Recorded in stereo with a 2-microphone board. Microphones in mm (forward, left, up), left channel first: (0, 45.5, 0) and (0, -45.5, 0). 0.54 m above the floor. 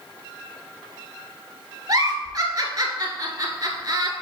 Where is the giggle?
45° right (ahead or behind), 1.2 m.